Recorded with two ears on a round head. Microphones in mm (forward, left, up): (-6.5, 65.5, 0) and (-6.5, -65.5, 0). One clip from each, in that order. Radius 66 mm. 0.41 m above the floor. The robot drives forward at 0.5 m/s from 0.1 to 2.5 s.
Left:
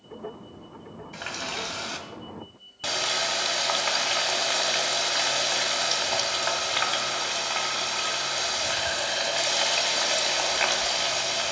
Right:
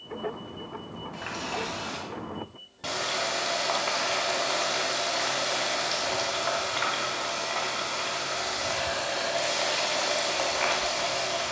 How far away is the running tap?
About 1.6 m.